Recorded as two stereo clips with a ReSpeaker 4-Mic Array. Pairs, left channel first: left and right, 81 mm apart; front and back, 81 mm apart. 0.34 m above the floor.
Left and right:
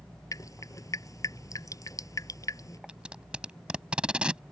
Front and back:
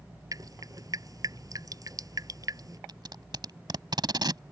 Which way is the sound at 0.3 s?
135° left.